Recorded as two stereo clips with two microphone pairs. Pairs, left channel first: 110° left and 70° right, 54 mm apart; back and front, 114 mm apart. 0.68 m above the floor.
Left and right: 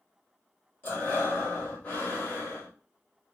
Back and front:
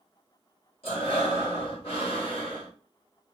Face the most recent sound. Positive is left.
turn(degrees=170)